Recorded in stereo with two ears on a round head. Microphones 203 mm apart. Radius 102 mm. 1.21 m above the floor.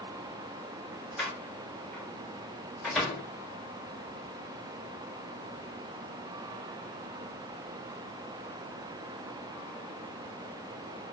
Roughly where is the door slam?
Centre.